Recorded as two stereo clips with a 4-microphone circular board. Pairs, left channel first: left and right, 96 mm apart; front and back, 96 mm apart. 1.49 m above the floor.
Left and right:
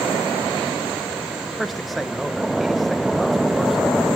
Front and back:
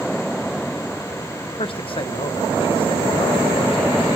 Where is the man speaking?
Straight ahead, 0.8 m.